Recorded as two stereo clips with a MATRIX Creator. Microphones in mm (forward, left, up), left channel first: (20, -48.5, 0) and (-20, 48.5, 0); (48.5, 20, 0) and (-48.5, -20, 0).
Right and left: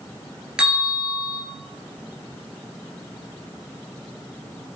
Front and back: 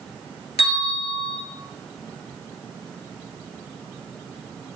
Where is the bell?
30° left, 1.1 m.